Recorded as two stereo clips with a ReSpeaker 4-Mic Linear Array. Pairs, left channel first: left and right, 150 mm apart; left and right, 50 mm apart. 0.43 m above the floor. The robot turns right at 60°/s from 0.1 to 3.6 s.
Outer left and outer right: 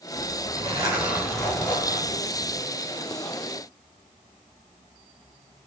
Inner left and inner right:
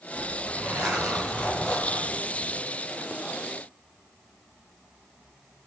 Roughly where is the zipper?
Ahead right.